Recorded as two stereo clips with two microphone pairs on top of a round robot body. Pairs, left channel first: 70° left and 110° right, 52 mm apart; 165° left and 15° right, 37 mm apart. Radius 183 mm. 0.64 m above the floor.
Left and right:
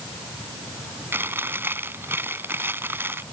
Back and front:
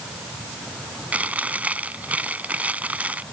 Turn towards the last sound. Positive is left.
turn(degrees=-60)